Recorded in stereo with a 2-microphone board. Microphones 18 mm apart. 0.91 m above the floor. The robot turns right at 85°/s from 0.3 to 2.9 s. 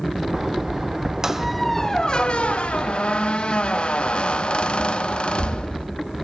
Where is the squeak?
35° right, 0.7 m; by 5.9 s 110° left, 0.7 m.